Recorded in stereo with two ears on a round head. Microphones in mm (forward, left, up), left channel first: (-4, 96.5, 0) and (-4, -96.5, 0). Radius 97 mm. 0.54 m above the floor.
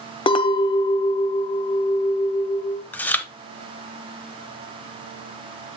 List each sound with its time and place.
0.3 s a clink: 25° left (ahead or behind), 0.5 m
2.9 s chewing: 10° left (ahead or behind), 0.7 m